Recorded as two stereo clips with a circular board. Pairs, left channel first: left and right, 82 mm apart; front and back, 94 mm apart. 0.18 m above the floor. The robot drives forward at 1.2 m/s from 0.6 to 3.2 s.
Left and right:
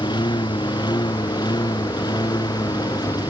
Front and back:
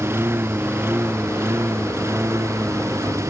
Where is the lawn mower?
115° left; by 3.3 s 120° left.